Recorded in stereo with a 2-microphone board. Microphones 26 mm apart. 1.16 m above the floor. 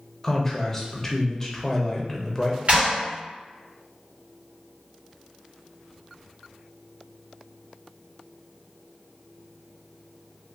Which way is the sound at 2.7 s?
50° right (ahead or behind).